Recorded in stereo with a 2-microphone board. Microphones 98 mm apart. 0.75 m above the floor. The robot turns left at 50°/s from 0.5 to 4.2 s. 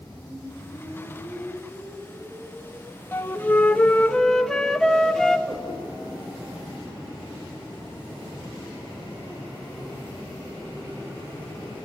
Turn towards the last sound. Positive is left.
turn(degrees=0)  # may be behind; listen again after turning